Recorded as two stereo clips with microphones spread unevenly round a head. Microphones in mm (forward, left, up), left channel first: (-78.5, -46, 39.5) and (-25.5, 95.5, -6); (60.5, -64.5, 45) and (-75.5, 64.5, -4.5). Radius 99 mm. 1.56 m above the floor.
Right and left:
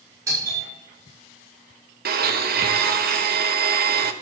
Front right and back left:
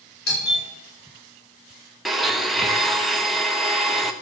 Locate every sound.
0.3 s a doorbell: 5° right, 4.5 m
2.0 s a blender: 50° left, 0.9 m